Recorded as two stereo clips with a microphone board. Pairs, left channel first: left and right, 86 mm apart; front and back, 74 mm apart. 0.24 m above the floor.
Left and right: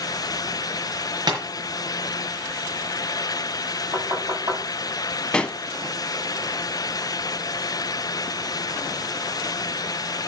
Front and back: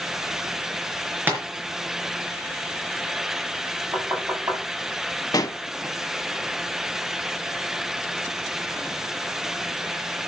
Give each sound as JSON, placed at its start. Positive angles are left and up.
{"t": 1.3, "sound": "tapping", "azimuth_deg": -120, "distance_m": 4.5}
{"t": 3.9, "sound": "knocking", "azimuth_deg": -130, "distance_m": 7.5}
{"t": 5.3, "sound": "a pop", "azimuth_deg": 10, "distance_m": 0.8}